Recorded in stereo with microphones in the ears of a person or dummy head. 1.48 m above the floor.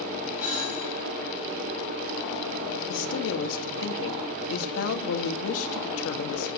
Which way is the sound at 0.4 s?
10° right (ahead or behind).